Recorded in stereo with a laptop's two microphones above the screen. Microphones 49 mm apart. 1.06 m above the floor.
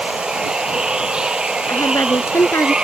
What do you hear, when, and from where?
0.0 s running water: 15° right (ahead or behind)
1.7 s a woman speaking: 85° left